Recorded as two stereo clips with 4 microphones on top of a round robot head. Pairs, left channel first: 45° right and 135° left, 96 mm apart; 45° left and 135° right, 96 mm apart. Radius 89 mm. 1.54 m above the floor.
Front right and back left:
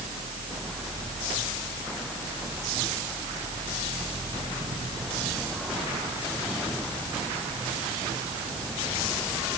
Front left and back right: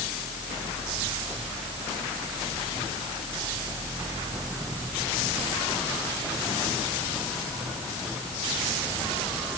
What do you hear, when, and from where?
Only background noise.